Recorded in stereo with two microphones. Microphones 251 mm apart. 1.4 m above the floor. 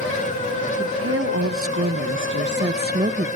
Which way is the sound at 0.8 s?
65° right (ahead or behind).